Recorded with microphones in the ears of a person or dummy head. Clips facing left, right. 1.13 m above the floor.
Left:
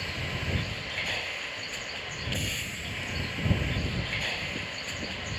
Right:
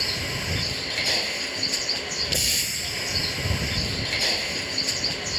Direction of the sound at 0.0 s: 60° right (ahead or behind).